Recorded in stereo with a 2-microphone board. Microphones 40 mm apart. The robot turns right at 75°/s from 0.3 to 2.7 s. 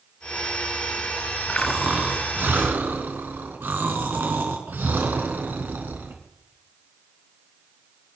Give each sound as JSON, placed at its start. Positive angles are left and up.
{"t": 1.6, "sound": "snoring", "azimuth_deg": 170, "distance_m": 3.0}